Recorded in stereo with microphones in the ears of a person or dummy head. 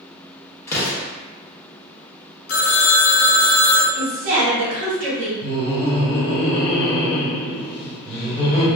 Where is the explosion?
20° left (ahead or behind), 0.8 m.